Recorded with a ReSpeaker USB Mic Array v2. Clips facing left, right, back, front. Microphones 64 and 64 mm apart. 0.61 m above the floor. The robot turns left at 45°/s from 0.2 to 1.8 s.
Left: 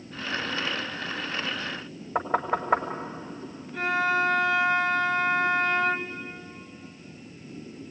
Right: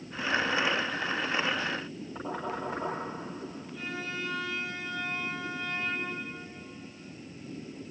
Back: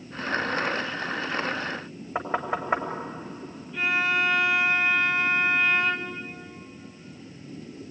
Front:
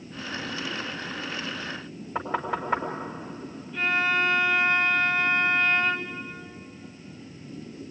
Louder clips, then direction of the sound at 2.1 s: Left 10 dB, back 1 dB; 110° left.